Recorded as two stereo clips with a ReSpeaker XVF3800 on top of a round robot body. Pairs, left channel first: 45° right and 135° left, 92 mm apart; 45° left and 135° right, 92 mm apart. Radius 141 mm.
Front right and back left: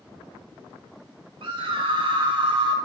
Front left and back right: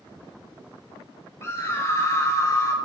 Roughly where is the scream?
Left.